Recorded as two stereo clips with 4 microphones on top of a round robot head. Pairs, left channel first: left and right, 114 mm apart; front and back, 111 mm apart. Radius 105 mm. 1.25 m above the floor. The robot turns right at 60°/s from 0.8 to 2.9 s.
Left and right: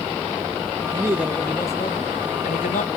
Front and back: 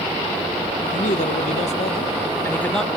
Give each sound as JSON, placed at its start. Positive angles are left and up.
{"t": 0.9, "sound": "a man speaking", "azimuth_deg": -25, "distance_m": 1.1}